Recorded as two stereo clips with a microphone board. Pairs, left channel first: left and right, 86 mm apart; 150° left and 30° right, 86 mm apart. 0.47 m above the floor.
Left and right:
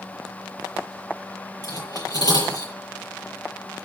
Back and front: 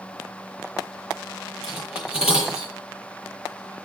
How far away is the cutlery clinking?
About 8.5 m.